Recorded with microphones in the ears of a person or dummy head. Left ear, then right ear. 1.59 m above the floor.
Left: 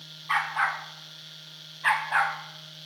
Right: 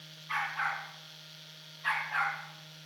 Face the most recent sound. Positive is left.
turn(degrees=40)  # may be behind; listen again after turning